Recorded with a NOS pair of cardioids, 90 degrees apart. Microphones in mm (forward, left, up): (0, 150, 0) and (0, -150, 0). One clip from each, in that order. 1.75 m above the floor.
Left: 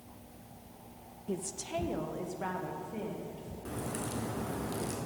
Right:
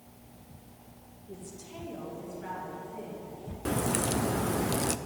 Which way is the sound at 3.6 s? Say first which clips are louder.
Right 9 dB; 55° right.